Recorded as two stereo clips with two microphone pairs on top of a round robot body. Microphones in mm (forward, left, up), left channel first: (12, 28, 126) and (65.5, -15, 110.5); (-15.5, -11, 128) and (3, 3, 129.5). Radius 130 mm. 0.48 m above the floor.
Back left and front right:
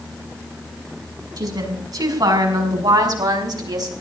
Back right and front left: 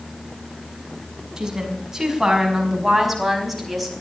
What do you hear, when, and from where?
1.4 s a woman speaking: 25° right, 5.5 m; by 3.9 s 50° right, 4.5 m